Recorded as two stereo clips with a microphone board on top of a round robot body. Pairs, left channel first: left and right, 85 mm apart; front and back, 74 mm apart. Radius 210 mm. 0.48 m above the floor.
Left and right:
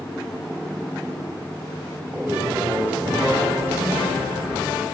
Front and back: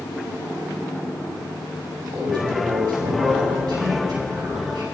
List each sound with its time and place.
2.1 s a man speaking: 160° right, 5 m